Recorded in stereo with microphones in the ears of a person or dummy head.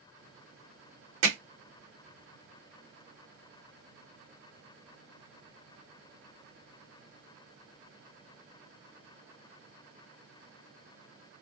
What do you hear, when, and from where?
1.2 s hammering: 50° right (ahead or behind), 1.4 m